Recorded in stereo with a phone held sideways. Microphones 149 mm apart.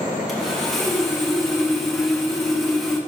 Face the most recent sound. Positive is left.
turn(degrees=0)  # may be behind; listen again after turning